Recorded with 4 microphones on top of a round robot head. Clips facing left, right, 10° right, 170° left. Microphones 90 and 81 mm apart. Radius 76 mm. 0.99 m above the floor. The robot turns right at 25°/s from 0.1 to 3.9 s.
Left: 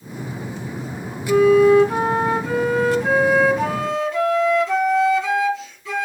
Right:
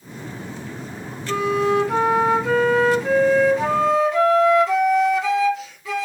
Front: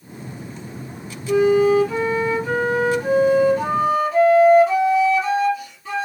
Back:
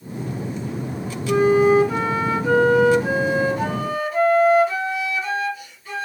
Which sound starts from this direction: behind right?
A flute, at 1.3 s.